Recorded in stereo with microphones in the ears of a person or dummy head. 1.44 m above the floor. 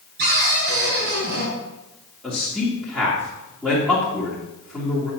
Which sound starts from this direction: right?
A cupboard door, at 0.2 s.